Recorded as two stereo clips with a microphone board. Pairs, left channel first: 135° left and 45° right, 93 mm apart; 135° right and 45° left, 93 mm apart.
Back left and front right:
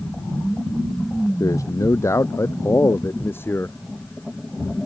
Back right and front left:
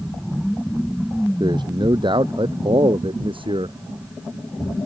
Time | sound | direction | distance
1.4 | a man speaking | 85° left | ?